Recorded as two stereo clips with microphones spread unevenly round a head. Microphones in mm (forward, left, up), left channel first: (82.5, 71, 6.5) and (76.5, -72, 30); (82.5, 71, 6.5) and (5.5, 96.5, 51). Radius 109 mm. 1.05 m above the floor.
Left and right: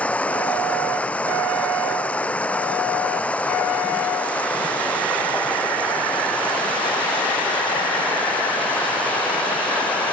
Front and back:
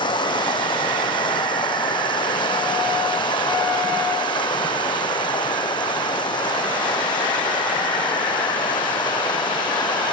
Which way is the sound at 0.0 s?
5° left.